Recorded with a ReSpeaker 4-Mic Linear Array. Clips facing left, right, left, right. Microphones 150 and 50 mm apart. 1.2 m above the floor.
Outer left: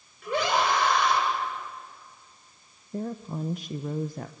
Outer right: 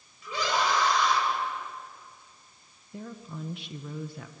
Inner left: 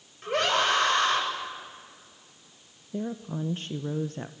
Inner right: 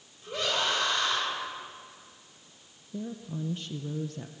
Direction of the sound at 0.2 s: 60° left (ahead or behind).